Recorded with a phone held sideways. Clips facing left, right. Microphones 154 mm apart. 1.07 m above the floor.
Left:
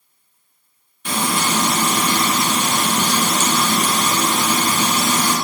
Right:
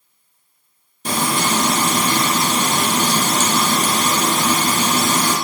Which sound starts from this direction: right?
Frying, at 1.1 s.